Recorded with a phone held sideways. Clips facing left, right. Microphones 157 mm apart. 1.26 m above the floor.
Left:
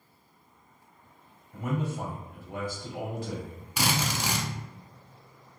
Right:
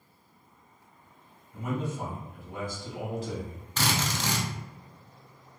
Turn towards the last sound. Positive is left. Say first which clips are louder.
# left 1 dB
turn(degrees=10)  # may be behind; listen again after turning